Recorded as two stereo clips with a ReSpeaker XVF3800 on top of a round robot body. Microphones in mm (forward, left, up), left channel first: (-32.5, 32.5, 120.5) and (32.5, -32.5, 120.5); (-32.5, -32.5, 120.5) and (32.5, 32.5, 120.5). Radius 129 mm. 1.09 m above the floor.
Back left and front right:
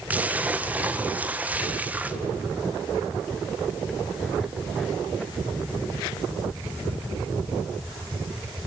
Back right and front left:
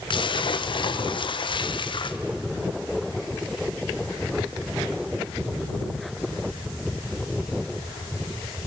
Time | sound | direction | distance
0.1 | a splash | 120° right | 1.2 m